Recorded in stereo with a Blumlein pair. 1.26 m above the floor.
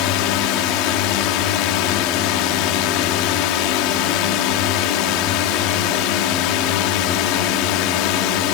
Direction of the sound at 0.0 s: 40° left.